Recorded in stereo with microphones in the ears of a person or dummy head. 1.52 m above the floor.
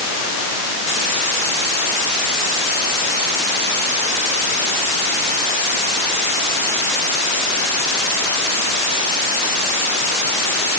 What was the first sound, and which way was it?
Only background noise.